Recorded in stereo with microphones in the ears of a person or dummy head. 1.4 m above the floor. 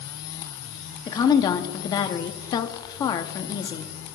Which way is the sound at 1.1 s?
30° left (ahead or behind).